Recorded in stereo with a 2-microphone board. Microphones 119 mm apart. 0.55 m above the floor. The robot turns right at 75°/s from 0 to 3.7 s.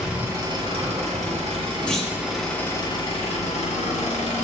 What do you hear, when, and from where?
0.0 s an engine running: straight behind, 0.8 m; by 4.5 s 100° left, 0.8 m
1.9 s a clunk: 10° left (ahead or behind), 0.6 m; by 2.2 s 15° right (ahead or behind), 0.6 m